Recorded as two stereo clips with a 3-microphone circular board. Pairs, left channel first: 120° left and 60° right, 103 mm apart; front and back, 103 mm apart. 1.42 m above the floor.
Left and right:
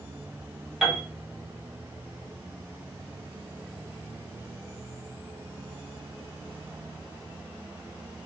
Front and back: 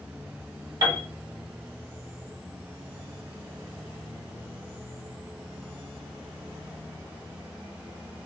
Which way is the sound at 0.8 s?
150° right.